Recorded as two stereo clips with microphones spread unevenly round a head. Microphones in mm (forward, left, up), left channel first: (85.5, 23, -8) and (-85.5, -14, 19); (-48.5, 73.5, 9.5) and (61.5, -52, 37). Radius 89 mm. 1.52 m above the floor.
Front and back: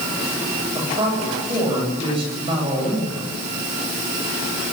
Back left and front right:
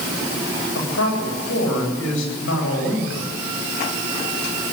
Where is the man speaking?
130° left, 10 m.